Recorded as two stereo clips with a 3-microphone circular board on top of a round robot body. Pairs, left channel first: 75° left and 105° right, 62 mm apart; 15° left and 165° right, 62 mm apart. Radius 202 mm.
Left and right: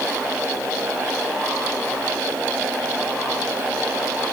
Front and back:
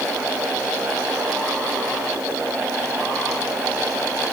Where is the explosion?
I don't hear an explosion.